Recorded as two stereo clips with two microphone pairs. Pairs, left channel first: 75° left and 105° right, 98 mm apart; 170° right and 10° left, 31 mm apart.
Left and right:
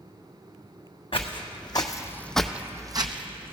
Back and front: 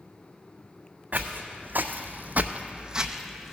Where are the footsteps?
40° left, 0.9 m; by 3.5 s 80° right, 0.8 m.